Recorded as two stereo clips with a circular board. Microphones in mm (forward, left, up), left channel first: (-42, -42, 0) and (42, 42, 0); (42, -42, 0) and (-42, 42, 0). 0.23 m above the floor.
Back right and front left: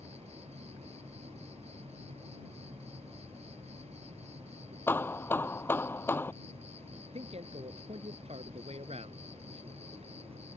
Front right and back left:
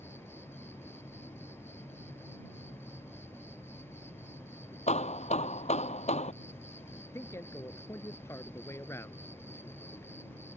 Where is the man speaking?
20° left.